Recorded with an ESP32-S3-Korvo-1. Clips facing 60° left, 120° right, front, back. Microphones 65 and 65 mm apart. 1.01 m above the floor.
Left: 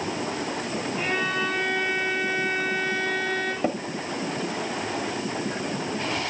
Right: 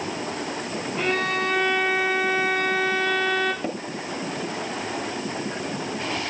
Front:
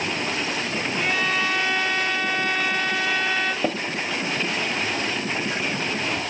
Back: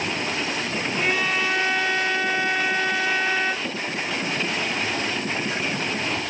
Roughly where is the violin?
Right.